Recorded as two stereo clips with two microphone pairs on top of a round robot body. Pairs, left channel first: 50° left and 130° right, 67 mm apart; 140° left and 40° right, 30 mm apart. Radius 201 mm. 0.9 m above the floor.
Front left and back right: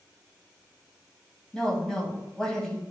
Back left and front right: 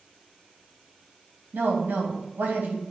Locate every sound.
1.5 s a woman speaking: 30° right, 2.5 m